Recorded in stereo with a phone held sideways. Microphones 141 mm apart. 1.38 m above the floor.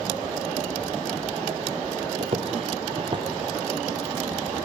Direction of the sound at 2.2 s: 45° right (ahead or behind).